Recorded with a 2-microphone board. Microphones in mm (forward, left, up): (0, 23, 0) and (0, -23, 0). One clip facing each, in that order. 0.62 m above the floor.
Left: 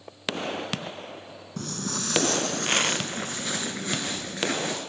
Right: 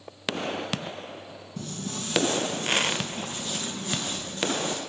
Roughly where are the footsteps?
Left.